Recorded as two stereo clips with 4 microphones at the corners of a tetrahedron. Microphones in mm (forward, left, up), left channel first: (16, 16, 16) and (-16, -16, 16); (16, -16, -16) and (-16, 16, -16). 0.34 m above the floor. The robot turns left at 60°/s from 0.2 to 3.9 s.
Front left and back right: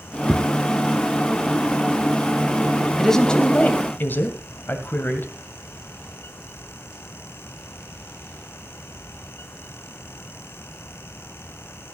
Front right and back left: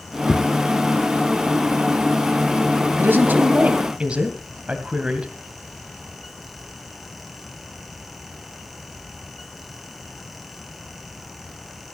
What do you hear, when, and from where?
0.3 s footsteps: 80° right, 3.5 m; by 0.5 s 90° right, 3.5 m
3.0 s a woman speaking: 130° left, 2 m; by 5.3 s 75° left, 2 m